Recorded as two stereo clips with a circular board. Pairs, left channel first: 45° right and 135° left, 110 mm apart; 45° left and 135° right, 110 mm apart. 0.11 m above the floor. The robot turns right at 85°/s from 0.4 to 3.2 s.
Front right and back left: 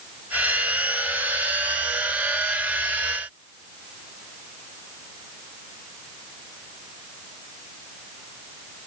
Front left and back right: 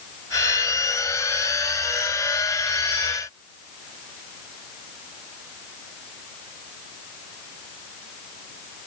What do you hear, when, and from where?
Only background noise.